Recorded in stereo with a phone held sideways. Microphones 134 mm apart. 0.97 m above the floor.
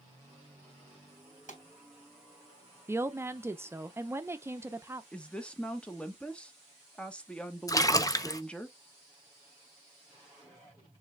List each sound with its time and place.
1.5 s a pop: 75° left (ahead or behind), 2.5 m
2.9 s a woman speaking: 20° right (ahead or behind), 0.5 m
5.1 s a woman speaking: 10° left (ahead or behind), 1.0 m
7.7 s a splash: 25° left (ahead or behind), 0.5 m